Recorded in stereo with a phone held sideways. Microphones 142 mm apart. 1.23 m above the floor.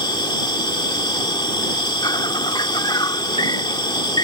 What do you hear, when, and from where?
0.0 s an insect: 30° left (ahead or behind)